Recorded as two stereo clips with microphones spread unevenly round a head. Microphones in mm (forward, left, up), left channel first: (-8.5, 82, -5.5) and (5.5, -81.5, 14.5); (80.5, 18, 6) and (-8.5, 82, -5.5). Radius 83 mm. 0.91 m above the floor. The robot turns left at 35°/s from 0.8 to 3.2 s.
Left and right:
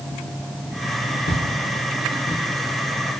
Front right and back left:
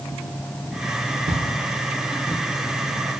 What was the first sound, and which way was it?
Footsteps, 125° left.